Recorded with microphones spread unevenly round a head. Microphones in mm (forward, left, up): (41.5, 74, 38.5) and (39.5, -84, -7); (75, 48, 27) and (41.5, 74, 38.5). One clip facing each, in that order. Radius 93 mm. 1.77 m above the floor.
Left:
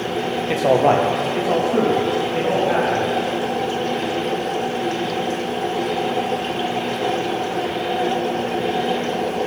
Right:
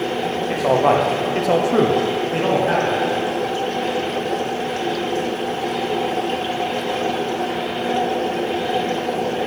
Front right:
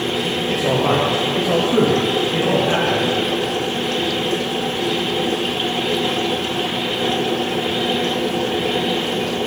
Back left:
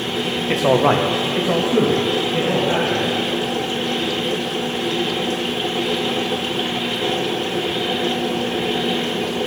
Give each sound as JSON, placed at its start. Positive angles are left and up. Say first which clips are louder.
{"t": 0.5, "sound": "a man speaking", "louder": "left 1 dB, back left 3 dB", "azimuth_deg": 150, "distance_m": 0.9}